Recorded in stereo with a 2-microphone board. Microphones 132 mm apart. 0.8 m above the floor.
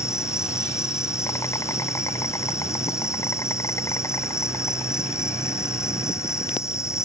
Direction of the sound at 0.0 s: 20° left (ahead or behind).